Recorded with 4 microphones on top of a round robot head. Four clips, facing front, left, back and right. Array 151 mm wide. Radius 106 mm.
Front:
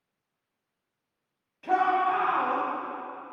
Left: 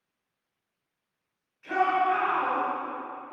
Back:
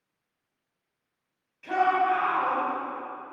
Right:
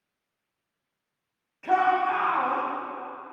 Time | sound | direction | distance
1.6 | a shout | 60° right | 9.5 m